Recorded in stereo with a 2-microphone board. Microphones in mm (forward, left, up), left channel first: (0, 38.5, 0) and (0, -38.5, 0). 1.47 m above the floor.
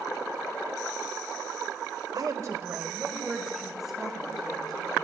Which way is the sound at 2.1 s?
60° right (ahead or behind).